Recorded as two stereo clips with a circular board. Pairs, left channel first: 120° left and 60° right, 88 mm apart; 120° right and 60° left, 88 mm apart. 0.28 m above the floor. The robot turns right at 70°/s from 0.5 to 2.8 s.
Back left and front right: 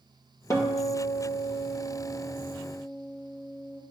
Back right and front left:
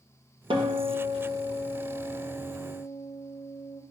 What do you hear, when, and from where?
0.5 s a guitar: 65° left, 2.0 m; by 3.8 s 135° right, 2.0 m